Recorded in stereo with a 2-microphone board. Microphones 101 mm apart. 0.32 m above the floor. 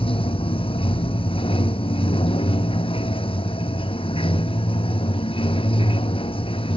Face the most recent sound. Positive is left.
turn(degrees=60)  # may be behind; listen again after turning